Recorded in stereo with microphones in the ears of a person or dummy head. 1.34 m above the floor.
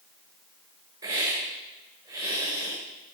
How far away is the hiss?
About 4 m.